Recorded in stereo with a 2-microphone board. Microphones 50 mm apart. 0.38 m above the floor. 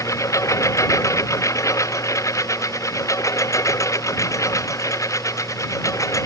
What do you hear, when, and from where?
0.0 s a lawn mower: 80° left